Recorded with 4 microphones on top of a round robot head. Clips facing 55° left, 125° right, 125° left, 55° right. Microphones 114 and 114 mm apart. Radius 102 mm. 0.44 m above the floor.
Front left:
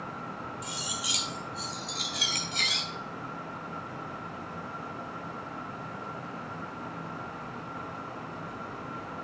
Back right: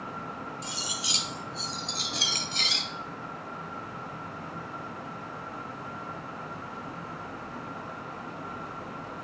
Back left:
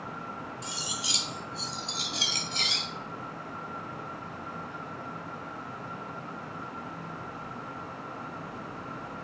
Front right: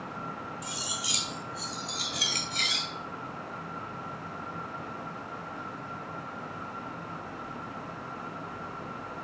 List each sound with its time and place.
0.6 s cutlery clinking: straight behind, 0.9 m